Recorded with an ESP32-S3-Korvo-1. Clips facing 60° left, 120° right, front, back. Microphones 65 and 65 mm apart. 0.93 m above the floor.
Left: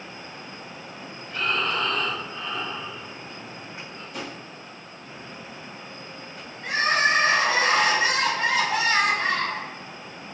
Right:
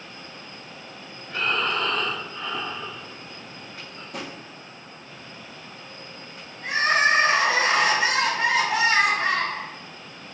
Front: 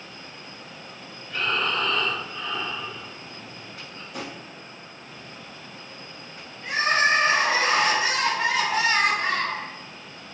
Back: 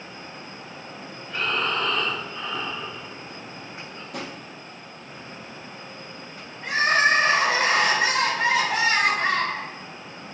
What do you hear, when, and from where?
1.3 s breathing: 110° right, 1.1 m
4.1 s a drawer: 155° right, 0.8 m
6.6 s crying: 170° right, 1.3 m